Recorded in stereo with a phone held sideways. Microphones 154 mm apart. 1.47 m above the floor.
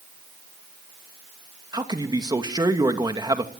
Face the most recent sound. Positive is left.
turn(degrees=-25)  # may be behind; listen again after turning